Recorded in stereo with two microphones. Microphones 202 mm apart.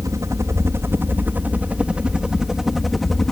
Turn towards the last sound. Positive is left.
turn(degrees=0)  # may be behind; listen again after turning